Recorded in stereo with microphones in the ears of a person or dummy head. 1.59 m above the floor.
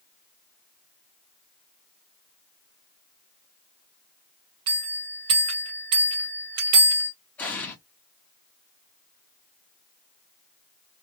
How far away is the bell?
About 1.4 m.